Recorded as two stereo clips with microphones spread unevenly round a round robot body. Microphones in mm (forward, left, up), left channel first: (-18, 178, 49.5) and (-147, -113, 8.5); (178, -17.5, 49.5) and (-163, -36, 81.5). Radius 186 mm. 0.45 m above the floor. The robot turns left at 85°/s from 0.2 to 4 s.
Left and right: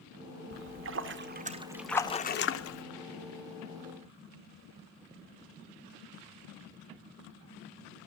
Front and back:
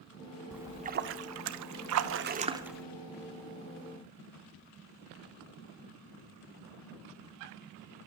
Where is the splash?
80° right, 0.7 m; by 2.8 s 80° left, 0.7 m.